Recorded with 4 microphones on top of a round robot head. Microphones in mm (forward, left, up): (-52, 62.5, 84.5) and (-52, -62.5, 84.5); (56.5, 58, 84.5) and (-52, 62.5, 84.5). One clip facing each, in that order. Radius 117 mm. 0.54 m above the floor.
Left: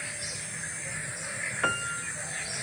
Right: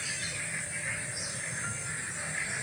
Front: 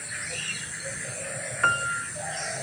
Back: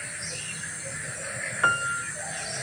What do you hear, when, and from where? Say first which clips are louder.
1.6 s a piano: left 9 dB, even; 100° left